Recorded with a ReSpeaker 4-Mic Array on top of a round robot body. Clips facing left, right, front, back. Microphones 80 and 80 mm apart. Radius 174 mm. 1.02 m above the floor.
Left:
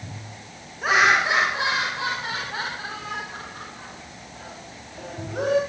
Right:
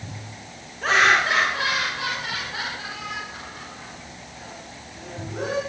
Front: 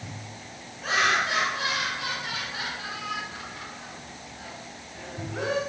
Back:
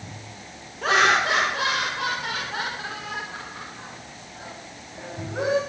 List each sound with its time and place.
0.8 s laughter: 170° left, 4.5 m; by 5.6 s 115° left, 8 m